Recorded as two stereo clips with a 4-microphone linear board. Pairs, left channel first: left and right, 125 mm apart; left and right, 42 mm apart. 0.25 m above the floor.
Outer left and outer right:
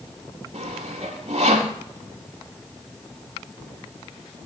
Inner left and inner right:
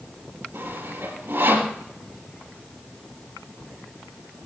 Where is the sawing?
70° right (ahead or behind), 3 m.